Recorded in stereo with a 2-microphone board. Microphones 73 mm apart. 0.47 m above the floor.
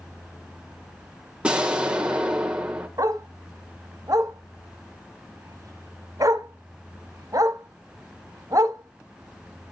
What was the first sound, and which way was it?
An explosion, 15° right (ahead or behind).